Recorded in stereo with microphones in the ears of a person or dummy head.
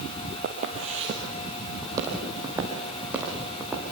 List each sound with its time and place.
0.4 s footsteps: 45° right (ahead or behind), 2 m; by 3.8 s 5° right (ahead or behind), 5 m